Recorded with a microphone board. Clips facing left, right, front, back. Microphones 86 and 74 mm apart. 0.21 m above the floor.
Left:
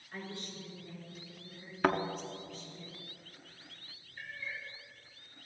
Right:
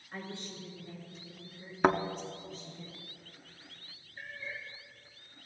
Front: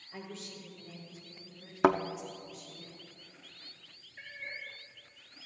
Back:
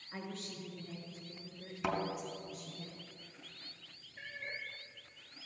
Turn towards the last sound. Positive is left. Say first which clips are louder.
# even, even
turn(degrees=-150)